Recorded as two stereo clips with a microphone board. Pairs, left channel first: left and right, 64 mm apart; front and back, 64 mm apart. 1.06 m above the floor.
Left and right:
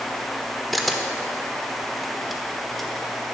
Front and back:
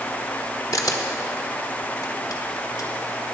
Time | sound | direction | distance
0.7 | a camera shutter | straight ahead | 1.2 m